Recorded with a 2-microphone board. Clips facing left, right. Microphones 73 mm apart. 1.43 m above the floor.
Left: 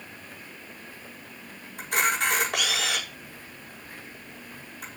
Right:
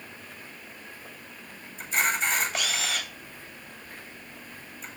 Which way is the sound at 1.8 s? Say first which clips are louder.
Left 2 dB; 70° left (ahead or behind).